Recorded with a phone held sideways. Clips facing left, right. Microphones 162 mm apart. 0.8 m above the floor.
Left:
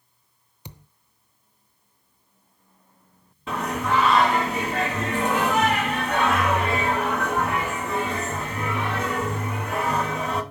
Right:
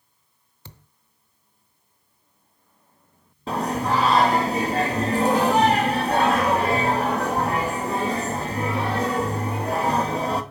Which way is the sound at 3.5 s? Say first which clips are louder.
Right 2 dB; 35° right (ahead or behind).